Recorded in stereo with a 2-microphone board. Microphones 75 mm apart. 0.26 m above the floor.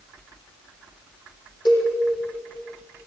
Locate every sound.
1.6 s a cowbell: 75° left (ahead or behind), 6.5 m